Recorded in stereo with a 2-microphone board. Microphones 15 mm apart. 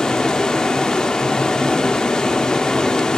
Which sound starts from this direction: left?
Running water, at 0.0 s.